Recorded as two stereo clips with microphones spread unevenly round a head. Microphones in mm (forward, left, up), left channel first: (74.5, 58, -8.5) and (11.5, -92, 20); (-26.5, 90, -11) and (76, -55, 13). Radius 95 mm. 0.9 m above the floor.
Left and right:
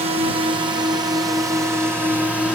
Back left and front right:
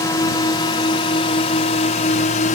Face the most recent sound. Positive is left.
turn(degrees=155)